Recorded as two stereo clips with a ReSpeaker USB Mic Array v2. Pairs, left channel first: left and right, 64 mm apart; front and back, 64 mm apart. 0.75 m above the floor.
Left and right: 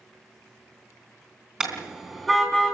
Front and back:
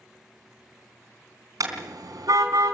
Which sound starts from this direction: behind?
A car horn, at 1.6 s.